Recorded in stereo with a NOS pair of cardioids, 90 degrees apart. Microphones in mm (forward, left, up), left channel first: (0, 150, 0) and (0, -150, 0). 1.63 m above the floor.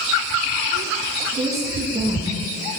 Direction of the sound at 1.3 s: 25° right.